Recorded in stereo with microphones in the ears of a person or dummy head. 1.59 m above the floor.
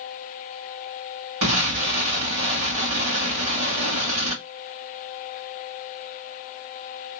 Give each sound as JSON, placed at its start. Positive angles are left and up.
{"t": 1.4, "sound": "an explosion", "side_deg": -50, "distance_m": 1.7}